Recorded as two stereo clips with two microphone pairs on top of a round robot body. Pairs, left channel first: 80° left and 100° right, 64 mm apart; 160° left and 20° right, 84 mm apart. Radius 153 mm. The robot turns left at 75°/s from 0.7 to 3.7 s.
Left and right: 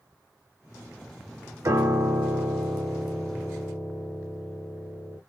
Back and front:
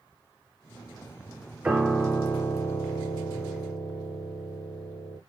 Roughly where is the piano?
Right.